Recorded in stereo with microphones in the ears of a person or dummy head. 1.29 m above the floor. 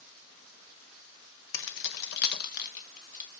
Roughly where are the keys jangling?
Left.